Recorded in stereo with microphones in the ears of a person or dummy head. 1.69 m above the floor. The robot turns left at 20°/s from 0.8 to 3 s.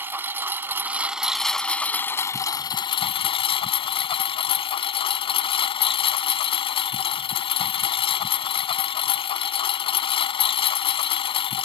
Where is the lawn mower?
170° right; by 11.7 s 145° left.